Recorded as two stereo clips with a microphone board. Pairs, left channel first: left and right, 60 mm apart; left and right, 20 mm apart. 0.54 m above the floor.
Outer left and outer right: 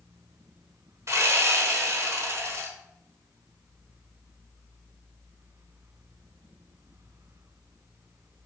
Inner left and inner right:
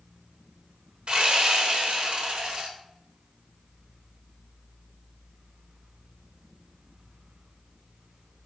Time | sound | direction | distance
1.1 | sawing | 55° right (ahead or behind) | 1.1 m